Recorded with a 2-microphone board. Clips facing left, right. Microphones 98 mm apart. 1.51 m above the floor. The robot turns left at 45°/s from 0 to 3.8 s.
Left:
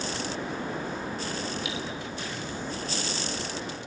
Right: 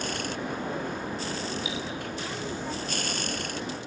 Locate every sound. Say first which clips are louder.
1.6 s cutlery clinking: even; 70° left (ahead or behind), 5 m; by 1.8 s 65° left (ahead or behind), 5 m